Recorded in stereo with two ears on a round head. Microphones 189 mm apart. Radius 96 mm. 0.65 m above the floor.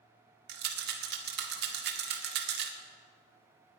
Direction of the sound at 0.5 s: 55° right (ahead or behind).